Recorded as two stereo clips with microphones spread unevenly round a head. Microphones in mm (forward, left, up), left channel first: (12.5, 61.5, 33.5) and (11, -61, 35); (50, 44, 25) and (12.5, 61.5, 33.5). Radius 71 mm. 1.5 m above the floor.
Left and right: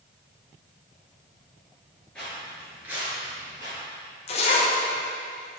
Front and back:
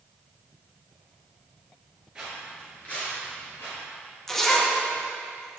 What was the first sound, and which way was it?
Footsteps, 165° left.